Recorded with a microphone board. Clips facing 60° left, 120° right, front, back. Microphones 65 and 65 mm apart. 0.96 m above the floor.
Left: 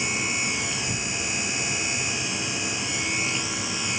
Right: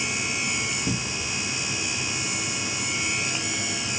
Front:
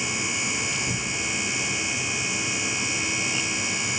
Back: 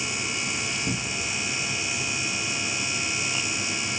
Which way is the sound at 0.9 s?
115° right.